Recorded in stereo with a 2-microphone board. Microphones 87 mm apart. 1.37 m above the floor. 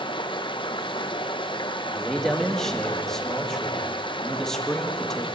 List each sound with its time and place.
0.0 s running water: 70° left (ahead or behind), 1.0 m
1.9 s a man speaking: 5° left (ahead or behind), 2.5 m